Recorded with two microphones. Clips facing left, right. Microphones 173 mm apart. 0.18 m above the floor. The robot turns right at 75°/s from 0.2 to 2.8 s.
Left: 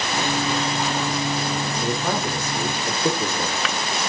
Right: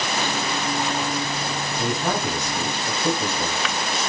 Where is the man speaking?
70° right, 2.5 m; by 3.6 s 5° left, 2.5 m.